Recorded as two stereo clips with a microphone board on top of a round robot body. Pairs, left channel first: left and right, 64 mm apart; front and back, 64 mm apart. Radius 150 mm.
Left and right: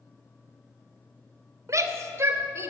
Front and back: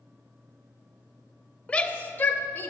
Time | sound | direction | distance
1.7 | a shout | 65° right | 2.0 m